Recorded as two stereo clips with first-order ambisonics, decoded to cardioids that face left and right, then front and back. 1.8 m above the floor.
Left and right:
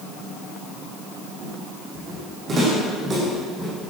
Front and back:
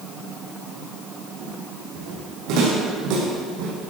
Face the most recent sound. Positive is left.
turn(degrees=-165)